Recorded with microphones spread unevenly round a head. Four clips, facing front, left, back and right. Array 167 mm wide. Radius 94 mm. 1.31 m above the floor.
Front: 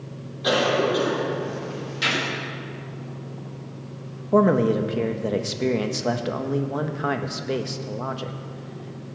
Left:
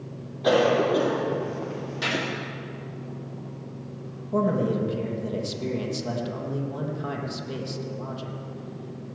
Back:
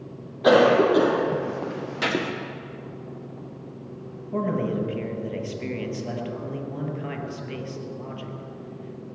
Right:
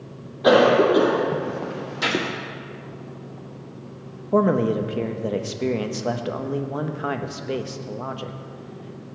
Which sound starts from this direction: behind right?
A gunshot, at 2.0 s.